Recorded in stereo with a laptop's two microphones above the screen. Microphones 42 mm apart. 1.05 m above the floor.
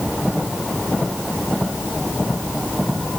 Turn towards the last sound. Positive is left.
No sound to turn to.